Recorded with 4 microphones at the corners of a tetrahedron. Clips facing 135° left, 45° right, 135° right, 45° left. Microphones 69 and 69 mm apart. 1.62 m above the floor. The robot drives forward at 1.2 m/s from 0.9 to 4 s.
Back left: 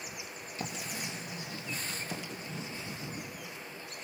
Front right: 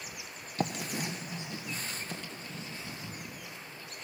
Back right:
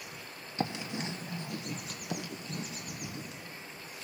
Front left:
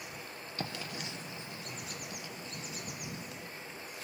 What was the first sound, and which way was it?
Writing, 65° right.